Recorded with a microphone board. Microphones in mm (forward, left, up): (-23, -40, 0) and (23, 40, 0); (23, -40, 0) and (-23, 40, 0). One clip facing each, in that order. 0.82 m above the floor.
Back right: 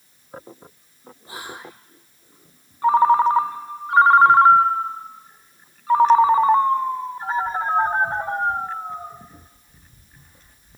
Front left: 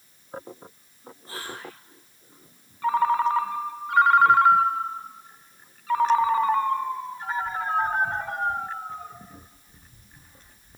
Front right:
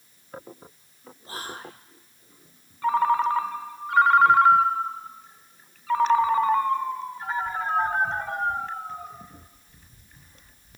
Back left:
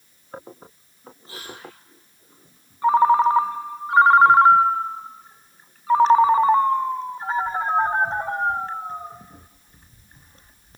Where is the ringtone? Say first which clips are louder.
Back right 6 dB, back left 6 dB; straight behind, 1.2 m.